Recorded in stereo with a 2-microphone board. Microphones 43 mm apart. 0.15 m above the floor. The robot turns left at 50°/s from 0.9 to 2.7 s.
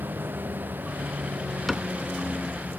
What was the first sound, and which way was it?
A vehicle, 100° right.